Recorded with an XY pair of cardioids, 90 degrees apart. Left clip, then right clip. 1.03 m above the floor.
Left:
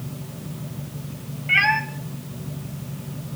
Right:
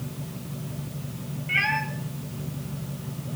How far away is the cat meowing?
About 3 m.